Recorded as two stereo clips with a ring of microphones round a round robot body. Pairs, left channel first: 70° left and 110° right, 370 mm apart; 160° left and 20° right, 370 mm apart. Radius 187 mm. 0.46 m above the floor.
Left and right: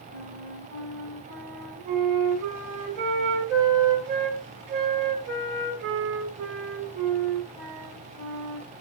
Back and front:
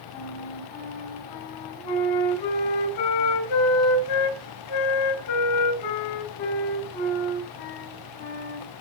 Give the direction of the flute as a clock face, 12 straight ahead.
6 o'clock.